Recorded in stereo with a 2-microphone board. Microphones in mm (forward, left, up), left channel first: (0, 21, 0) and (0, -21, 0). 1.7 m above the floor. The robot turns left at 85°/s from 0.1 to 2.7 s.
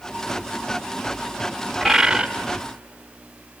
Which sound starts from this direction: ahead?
A bird, at 1.8 s.